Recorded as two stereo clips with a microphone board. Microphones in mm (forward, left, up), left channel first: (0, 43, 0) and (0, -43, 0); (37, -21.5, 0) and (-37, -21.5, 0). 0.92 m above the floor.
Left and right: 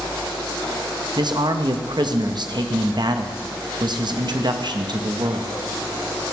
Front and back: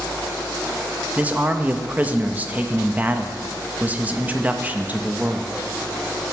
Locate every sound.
1.2 s a man speaking: 110° right, 0.8 m